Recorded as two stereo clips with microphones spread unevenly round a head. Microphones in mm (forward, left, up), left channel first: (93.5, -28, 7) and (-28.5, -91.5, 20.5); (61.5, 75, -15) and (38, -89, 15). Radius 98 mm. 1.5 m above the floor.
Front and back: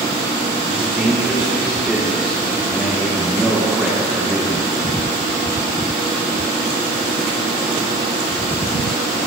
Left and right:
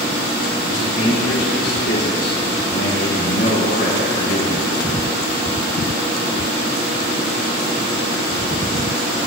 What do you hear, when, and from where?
0.6 s a man speaking: 120° left, 5 m